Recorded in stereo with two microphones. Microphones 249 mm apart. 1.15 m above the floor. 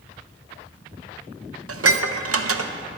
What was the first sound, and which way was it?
Dishes clattering, 65° right (ahead or behind).